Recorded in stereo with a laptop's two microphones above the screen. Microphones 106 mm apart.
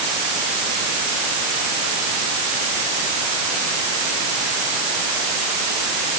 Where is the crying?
No crying in this recording.